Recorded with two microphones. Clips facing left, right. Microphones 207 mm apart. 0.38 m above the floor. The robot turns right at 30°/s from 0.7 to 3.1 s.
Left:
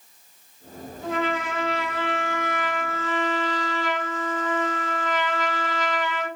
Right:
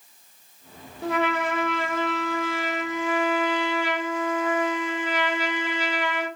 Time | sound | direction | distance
1.0 | a trumpet | 75° right | 0.6 m